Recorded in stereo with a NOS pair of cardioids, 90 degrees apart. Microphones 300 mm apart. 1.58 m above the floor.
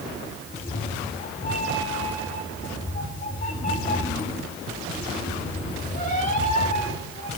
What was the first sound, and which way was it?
A cat meowing, 25° left.